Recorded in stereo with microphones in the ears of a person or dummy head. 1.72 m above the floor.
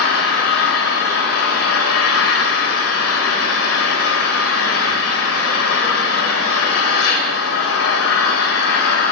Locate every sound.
0.0 s an engine running: 80° left, 1.9 m